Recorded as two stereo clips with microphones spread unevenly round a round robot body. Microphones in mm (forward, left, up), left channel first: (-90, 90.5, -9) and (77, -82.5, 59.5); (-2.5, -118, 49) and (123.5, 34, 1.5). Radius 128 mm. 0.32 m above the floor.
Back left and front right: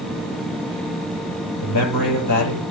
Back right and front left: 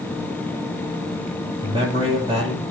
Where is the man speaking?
125° left, 7.5 m.